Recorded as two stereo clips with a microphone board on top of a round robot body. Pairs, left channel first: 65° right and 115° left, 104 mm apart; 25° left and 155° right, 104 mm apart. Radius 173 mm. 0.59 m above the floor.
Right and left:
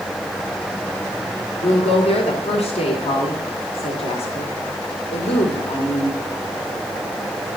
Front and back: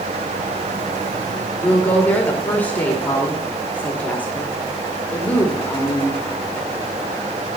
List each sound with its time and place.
1.6 s a woman speaking: 55° right, 2.5 m